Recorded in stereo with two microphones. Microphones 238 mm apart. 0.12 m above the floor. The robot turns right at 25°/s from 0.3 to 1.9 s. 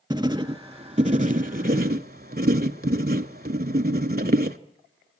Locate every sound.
0.1 s writing: 155° right, 0.6 m; by 4.6 s 115° right, 0.6 m